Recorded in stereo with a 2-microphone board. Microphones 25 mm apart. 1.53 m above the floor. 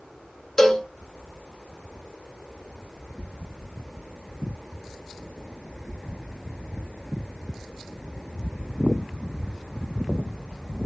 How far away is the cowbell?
About 0.7 m.